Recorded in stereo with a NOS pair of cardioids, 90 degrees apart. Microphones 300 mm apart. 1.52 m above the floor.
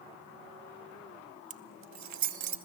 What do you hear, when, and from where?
1.5 s keys jangling: 55° right, 1.4 m; by 2.6 s 80° right, 2.0 m